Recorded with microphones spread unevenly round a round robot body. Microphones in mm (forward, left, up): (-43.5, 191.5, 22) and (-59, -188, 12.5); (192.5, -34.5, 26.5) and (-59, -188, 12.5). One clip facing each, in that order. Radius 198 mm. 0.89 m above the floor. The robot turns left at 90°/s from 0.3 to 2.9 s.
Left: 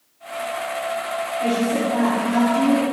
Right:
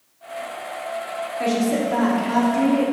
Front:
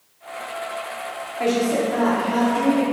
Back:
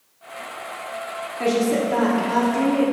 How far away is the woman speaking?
About 2.0 m.